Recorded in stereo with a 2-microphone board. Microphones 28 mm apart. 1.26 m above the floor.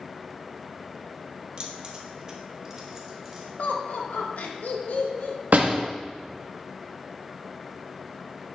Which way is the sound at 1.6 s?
40° right (ahead or behind).